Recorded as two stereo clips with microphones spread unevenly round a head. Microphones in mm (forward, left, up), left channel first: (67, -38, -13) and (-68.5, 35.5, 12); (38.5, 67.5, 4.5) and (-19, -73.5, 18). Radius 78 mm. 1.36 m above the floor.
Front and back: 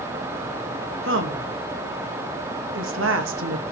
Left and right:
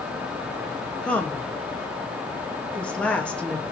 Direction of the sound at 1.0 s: 150° left.